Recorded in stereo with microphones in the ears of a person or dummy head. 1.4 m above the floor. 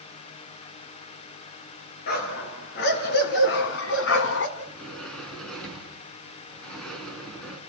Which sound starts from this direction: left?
A dog barking, at 2.1 s.